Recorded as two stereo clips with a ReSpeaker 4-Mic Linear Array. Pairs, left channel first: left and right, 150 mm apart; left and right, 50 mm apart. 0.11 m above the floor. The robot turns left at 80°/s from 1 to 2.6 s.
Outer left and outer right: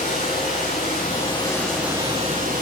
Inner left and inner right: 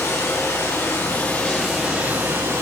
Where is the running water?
60° left, 9 m; by 2.6 s 70° right, 9 m.